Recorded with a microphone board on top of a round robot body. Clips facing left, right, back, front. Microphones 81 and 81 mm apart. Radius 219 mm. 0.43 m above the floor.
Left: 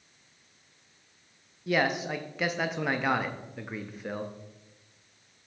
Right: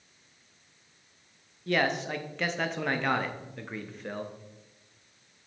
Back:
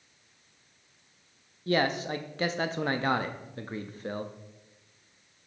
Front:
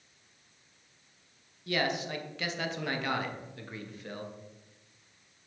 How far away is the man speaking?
About 0.8 m.